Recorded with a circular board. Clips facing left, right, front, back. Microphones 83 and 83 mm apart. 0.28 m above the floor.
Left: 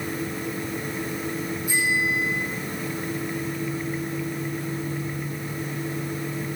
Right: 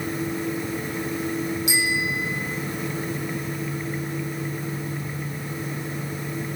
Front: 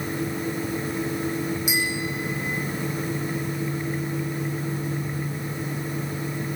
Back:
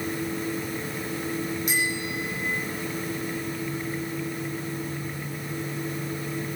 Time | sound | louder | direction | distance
1.7 | a bicycle bell | left 1 dB, front 1 dB | 85° right | 8.5 m